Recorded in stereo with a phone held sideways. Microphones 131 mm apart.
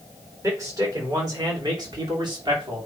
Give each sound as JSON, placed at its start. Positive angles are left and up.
{"t": 0.4, "sound": "a man speaking", "side_deg": -25, "distance_m": 4.0}